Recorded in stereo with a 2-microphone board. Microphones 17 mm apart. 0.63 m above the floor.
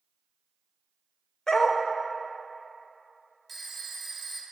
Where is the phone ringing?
Centre (ahead or behind), 0.6 m.